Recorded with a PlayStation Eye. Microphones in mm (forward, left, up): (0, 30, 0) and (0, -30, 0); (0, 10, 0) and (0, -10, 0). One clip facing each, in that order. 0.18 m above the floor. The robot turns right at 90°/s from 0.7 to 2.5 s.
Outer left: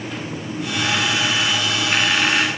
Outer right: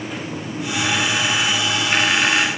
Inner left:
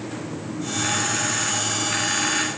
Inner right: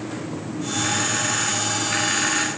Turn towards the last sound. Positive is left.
No sound to turn to.